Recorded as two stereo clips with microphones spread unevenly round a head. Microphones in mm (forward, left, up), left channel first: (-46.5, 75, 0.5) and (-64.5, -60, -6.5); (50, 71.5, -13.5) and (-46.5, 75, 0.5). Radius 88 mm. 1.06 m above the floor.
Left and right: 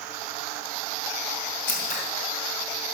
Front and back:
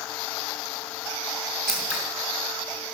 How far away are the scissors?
About 3 m.